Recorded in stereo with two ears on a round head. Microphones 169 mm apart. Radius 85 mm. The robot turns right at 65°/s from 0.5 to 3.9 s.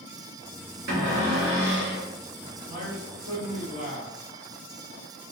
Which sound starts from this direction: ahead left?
A man speaking, at 2.7 s.